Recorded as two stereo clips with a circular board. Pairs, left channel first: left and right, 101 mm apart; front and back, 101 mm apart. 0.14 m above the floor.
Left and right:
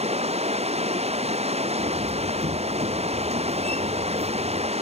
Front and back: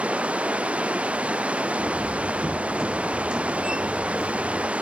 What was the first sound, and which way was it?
Running water, 100° right.